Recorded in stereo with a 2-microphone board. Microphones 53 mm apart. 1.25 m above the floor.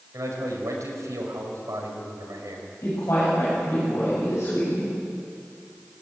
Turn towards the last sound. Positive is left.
turn(degrees=50)  # may be behind; listen again after turning